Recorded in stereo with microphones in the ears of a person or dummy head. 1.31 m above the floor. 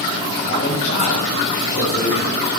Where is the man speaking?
65° left (ahead or behind), 7.5 m.